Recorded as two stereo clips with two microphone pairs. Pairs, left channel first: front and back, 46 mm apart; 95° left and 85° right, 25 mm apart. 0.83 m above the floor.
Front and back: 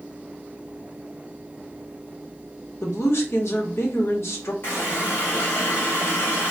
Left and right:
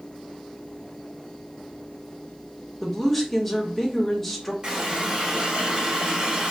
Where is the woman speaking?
10° left, 1.3 m.